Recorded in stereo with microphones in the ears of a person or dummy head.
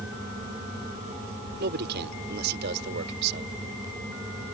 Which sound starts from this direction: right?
A man speaking, at 1.6 s.